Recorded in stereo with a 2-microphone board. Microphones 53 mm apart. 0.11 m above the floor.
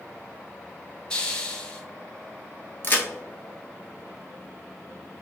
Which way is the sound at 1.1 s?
20° left (ahead or behind).